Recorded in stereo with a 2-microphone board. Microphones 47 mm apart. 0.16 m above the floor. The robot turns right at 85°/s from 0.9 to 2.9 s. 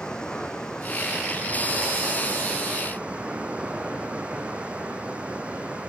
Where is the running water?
165° left, 4 m; by 5.9 s 25° right, 4 m.